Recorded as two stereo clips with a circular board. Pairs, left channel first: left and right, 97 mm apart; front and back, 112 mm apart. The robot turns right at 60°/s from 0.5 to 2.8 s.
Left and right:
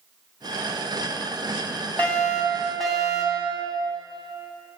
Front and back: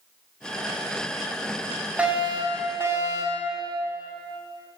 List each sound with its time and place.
2.0 s a fire alarm: 125° left, 2 m; by 3.5 s 175° left, 2 m